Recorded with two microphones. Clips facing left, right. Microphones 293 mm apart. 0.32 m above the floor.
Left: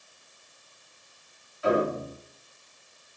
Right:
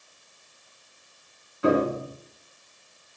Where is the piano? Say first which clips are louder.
Right 3 dB; 70° right (ahead or behind), 3.5 m.